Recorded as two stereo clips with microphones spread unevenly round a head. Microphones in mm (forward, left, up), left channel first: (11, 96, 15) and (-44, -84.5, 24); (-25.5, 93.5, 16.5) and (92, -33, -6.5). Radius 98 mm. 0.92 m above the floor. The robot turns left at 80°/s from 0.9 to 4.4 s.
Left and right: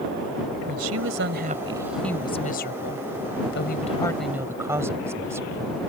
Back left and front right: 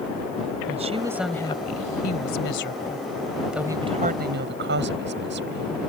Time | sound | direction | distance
0.7 | a woman speaking | 110° right | ?